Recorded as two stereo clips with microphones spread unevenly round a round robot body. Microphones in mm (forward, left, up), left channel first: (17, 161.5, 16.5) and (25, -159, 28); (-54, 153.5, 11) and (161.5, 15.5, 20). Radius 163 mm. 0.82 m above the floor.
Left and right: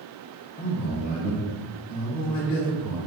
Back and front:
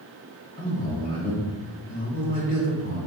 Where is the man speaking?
95° left, 0.9 m.